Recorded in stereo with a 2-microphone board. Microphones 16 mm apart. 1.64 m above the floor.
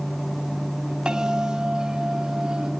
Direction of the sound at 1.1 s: 60° right (ahead or behind).